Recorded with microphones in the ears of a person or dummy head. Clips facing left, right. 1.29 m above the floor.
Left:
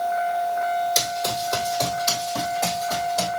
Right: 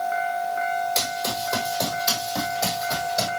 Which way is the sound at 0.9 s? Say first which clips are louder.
Left 2 dB; 5° left (ahead or behind).